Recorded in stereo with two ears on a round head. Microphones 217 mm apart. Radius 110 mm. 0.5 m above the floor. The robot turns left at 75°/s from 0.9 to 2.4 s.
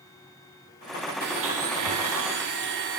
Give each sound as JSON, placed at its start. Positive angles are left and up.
{"t": 1.2, "sound": "a blender", "azimuth_deg": -40, "distance_m": 2.5}